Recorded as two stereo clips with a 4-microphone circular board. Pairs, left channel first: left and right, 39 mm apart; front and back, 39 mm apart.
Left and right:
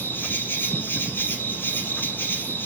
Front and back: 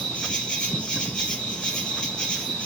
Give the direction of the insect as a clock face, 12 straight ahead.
10 o'clock.